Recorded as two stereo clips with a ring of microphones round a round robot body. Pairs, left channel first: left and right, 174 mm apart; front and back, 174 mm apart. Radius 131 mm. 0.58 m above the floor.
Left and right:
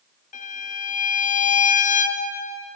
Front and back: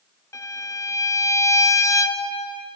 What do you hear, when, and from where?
0.3 s a violin: 70° left, 0.6 m